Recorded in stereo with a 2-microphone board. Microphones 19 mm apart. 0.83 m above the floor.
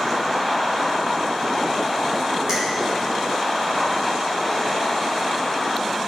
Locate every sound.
2.5 s a finger snap: 30° right (ahead or behind), 4 m